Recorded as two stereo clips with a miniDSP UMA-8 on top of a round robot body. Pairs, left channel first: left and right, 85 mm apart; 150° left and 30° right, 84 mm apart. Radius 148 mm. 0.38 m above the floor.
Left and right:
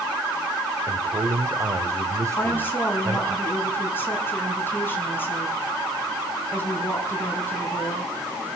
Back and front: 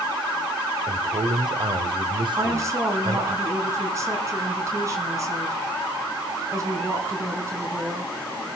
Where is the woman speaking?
25° left, 5 m.